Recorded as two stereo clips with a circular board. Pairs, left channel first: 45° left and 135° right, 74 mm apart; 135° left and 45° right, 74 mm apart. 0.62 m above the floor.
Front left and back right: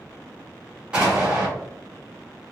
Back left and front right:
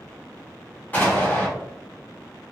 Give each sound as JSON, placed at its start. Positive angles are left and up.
{"t": 0.9, "sound": "an explosion", "azimuth_deg": 165, "distance_m": 1.2}